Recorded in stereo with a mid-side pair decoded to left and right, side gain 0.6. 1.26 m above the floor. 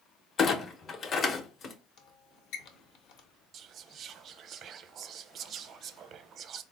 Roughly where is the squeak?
Ahead left.